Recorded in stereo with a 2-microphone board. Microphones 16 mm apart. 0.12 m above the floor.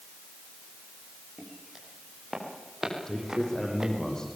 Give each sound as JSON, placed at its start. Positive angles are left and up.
{"t": 1.4, "sound": "footsteps", "side_deg": -20, "distance_m": 7.5}
{"t": 3.1, "sound": "a man speaking", "side_deg": 40, "distance_m": 6.0}